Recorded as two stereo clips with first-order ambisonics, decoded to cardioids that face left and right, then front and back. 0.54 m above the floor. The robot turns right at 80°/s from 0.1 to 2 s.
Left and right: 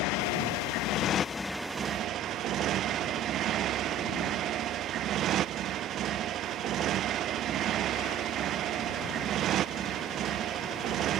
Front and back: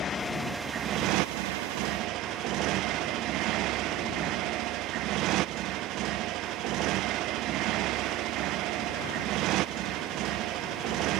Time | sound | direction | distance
0.0 | a motorcycle | 65° left | ?